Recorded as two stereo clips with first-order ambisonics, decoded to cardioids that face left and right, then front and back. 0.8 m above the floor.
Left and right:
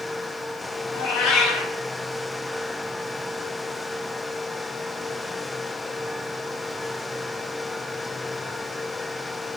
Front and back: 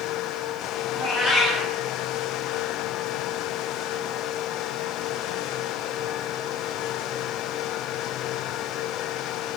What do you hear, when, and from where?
0.9 s a cat meowing: 90° left, 0.9 m